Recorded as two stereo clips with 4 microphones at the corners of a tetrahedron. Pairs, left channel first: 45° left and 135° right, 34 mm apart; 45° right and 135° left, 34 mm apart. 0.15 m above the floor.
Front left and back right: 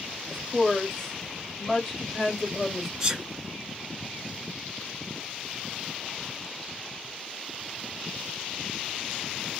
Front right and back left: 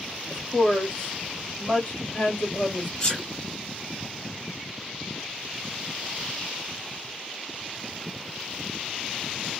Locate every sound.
0.3 s a woman speaking: 20° right, 1.7 m
3.0 s a sneeze: 85° right, 1.1 m